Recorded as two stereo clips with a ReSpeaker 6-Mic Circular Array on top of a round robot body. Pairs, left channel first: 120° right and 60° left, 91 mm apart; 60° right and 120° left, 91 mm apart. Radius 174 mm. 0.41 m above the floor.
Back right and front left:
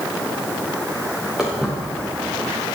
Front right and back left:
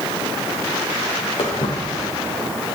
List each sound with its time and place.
1.4 s footsteps: 25° right, 4 m; by 2.5 s 35° right, 4 m